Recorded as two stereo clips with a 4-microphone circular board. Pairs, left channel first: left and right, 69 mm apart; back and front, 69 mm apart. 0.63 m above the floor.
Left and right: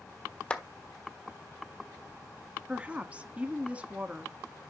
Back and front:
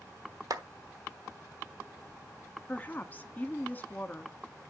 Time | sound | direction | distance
0.5 | a clap | 20° left | 1.1 m
2.7 | a woman speaking | 145° right | 1.0 m